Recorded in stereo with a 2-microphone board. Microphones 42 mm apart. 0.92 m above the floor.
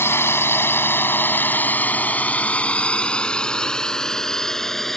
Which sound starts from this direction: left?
A drone, at 0.0 s.